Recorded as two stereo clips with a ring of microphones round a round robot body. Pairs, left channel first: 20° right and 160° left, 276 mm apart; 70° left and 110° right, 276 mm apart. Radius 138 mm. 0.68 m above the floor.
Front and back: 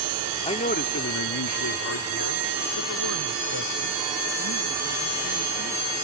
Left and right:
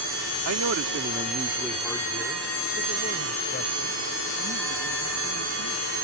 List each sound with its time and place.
0.5 s a man speaking: 90° right; by 5.9 s 20° left